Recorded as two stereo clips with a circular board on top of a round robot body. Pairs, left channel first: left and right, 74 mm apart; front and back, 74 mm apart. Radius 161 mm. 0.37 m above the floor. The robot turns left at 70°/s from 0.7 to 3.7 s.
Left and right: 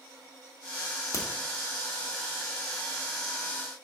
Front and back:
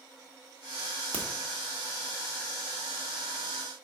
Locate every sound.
1.1 s a crack: 65° left, 1.9 m; by 1.2 s 60° left, 1.9 m